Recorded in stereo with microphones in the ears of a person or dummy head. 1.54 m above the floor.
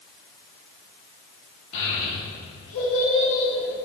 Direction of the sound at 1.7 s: 65° left (ahead or behind).